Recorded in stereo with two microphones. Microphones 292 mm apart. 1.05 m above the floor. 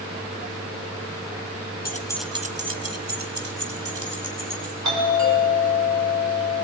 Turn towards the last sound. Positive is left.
turn(degrees=-75)  # may be behind; listen again after turning